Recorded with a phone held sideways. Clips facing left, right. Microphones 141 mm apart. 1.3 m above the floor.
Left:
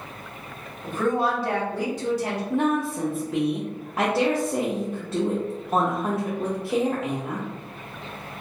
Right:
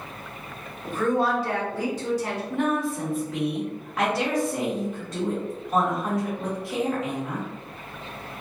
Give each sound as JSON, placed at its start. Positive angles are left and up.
{"t": 0.8, "sound": "a woman speaking", "side_deg": 70, "distance_m": 1.9}
{"t": 2.5, "sound": "a woman speaking", "side_deg": 30, "distance_m": 0.6}